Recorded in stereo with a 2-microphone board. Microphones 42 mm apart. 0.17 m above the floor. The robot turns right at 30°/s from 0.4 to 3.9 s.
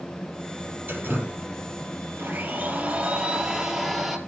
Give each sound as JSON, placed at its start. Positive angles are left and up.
{"t": 0.9, "sound": "dripping", "side_deg": -55, "distance_m": 4.0}
{"t": 2.2, "sound": "a blender", "azimuth_deg": -60, "distance_m": 3.0}